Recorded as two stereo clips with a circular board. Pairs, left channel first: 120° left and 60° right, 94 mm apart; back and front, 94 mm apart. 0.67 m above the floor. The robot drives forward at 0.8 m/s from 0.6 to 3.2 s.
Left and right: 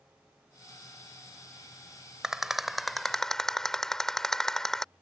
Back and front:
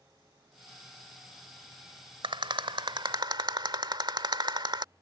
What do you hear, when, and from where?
2.2 s a rattle: 25° left; by 4.9 s 35° left